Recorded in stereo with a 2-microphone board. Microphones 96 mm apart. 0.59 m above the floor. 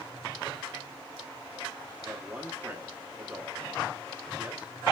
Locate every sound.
2.0 s a man speaking: 15° right (ahead or behind), 1.2 m